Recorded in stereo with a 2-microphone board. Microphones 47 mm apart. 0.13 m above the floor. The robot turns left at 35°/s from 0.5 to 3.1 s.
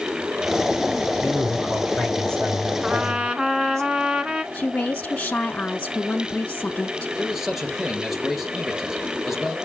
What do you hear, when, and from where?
1.2 s a man speaking: 10° right, 6 m; by 3.8 s 80° right, 6 m
2.8 s a trumpet: 20° right (ahead or behind), 1.0 m; by 4.4 s 15° right (ahead or behind), 1.0 m
4.5 s a woman speaking: 25° left (ahead or behind), 1.4 m
7.2 s a man speaking: 5° right (ahead or behind), 2.5 m